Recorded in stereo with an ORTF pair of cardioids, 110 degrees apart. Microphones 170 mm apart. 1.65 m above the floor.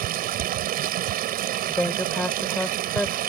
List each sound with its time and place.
0.0 s running water: 70° right
1.7 s a woman speaking: 5° left